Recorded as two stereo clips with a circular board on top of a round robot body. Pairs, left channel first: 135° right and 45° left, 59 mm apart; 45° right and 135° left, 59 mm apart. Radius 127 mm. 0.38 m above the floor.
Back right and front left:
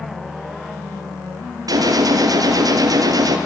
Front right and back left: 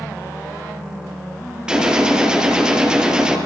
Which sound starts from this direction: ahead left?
A gunshot, at 1.7 s.